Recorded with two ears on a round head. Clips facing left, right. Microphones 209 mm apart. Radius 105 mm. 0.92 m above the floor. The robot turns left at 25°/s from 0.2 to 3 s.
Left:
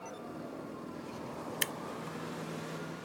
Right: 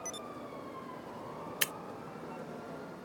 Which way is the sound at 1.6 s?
5° right (ahead or behind).